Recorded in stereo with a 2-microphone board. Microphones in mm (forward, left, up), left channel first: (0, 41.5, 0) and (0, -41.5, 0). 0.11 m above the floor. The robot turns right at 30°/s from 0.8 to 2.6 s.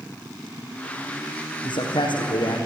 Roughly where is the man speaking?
Left.